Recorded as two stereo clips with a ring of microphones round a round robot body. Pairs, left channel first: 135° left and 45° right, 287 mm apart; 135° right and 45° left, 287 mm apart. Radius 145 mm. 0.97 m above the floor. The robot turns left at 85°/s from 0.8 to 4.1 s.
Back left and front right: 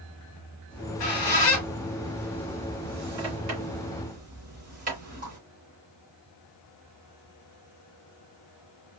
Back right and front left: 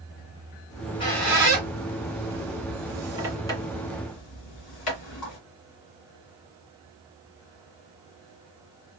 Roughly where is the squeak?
Behind.